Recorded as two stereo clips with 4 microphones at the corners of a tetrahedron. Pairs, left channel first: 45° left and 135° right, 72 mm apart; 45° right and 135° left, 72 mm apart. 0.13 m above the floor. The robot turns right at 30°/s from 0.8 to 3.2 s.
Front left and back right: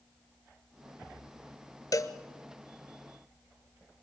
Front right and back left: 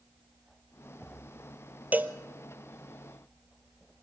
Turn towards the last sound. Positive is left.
turn(degrees=110)